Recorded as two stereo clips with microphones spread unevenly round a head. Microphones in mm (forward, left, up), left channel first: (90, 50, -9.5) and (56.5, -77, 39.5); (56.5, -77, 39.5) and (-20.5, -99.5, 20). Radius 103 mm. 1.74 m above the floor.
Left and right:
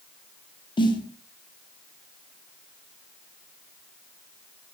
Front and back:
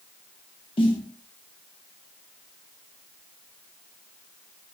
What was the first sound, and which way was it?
A snare drum, 20° left.